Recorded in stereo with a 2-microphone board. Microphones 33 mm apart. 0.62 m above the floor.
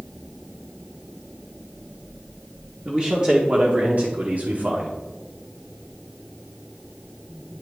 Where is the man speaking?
30° right (ahead or behind), 1.2 m; by 4.9 s 50° right (ahead or behind), 1.2 m.